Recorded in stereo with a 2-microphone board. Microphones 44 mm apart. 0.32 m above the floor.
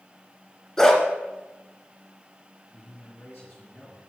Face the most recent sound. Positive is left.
turn(degrees=60)  # may be behind; listen again after turning